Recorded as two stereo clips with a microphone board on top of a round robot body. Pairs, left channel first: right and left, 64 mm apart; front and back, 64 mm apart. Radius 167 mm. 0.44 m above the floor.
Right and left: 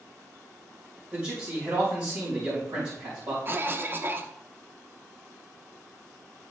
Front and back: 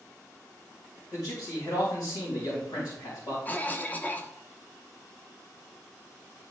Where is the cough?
50° left, 1.2 m.